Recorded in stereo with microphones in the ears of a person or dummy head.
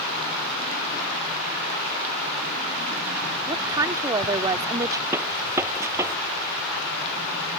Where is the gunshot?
15° right (ahead or behind).